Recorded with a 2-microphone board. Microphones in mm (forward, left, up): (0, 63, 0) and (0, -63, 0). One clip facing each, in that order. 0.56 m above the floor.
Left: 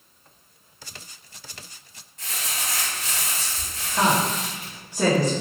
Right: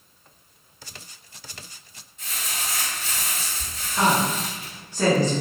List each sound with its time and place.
2.2 s crumpling: 75° left (ahead or behind), 1.1 m
4.0 s a woman speaking: 15° left (ahead or behind), 0.7 m